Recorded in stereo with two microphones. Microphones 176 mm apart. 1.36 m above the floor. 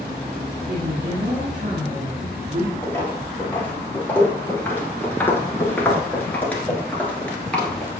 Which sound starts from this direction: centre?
Footsteps, at 2.8 s.